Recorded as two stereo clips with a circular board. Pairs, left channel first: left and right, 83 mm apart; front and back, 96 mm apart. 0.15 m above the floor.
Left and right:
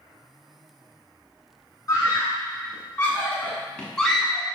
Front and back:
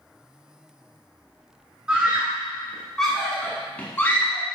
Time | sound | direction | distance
1.9 | a scream | 110° left | 2 m